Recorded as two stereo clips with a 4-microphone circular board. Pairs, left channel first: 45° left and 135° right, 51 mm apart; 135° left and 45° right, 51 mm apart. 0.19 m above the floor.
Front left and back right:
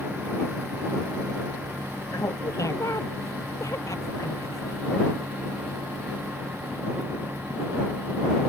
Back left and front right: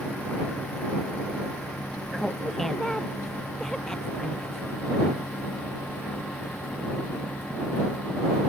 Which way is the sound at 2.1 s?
50° left.